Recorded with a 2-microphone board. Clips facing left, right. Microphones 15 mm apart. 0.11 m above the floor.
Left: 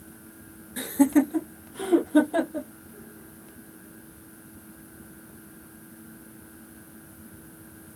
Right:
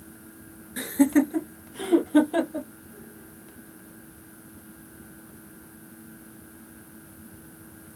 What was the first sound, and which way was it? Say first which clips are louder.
Laughter: even; 15° right (ahead or behind).